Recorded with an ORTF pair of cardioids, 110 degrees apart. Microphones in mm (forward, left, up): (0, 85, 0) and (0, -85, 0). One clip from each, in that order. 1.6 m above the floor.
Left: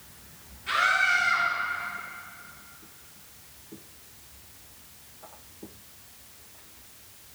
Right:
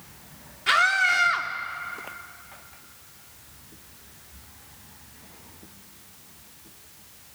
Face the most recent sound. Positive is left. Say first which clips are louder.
# right 3 dB
turn(degrees=-65)